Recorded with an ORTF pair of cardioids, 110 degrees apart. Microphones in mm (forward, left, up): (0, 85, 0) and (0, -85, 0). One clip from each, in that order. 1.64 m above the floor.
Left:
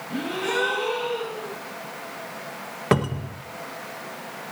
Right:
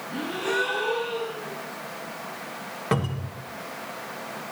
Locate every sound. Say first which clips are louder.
0.1 s a gasp: left 1 dB; 40° left, 8 m
2.9 s a cupboard door: left 5 dB; 30° left, 1.8 m